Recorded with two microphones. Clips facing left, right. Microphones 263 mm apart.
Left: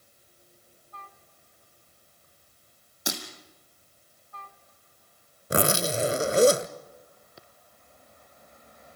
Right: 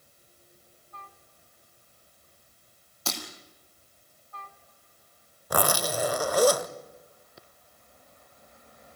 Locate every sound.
3.1 s breaking glass: 15° left (ahead or behind), 3.5 m
5.5 s a zipper: 25° left (ahead or behind), 0.7 m